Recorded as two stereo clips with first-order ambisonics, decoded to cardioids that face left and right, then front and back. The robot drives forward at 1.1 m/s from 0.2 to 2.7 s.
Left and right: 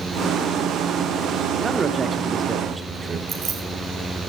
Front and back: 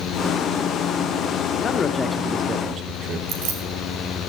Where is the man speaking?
25° right, 1.1 m; by 3.2 s 155° right, 1.1 m.